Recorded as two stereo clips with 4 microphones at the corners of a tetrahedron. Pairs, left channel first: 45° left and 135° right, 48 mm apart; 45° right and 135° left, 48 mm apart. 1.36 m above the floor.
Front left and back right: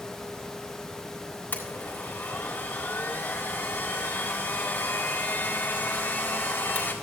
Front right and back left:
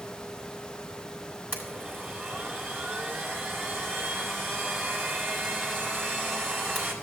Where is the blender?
90° left, 2.5 m.